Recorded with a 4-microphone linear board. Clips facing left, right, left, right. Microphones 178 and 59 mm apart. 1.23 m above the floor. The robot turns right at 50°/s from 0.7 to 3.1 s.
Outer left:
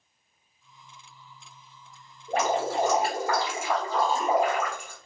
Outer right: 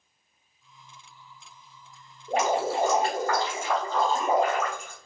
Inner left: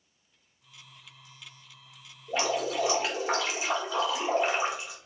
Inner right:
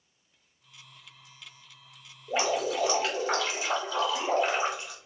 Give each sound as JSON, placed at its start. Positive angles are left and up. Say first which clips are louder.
{"t": 2.3, "sound": "dripping", "louder": "outer right 1 dB, inner right 1 dB", "azimuth_deg": -30, "distance_m": 1.3}